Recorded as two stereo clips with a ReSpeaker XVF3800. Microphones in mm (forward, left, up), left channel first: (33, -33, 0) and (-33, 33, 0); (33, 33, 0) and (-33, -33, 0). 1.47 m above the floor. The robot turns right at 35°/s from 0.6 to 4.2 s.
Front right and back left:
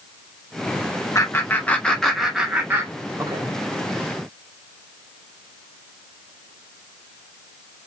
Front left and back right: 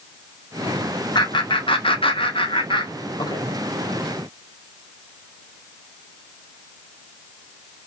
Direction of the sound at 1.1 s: 10° left.